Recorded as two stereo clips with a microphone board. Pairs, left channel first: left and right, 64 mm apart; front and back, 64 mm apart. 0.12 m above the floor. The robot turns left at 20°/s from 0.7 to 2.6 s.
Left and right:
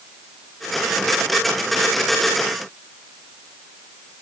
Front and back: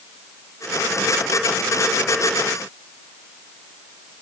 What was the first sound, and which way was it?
Only background noise.